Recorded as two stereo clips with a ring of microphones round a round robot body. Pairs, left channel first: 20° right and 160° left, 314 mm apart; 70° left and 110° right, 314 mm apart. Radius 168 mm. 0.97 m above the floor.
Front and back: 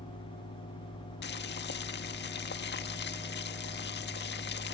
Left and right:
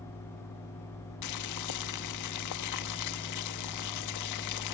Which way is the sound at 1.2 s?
35° left.